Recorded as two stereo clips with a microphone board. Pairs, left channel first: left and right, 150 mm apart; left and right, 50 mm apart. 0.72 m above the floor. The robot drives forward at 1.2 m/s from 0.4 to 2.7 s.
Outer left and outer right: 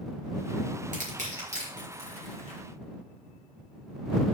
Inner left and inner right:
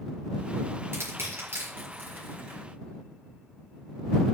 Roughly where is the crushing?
Right.